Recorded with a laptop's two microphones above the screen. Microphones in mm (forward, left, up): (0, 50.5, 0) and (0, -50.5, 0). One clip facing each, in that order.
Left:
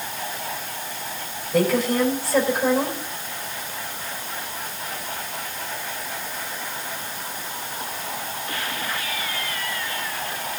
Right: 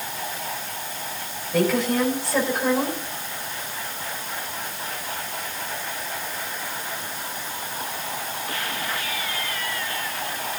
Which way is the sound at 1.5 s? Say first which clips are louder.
Left 1 dB; 5° left (ahead or behind).